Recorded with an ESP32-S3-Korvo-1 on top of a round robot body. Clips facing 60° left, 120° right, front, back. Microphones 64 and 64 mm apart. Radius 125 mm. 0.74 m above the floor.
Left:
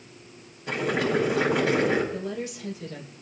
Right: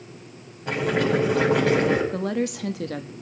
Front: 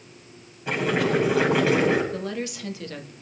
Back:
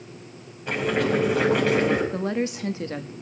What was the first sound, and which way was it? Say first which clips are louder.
Boiling: right 3 dB, even; 85° right.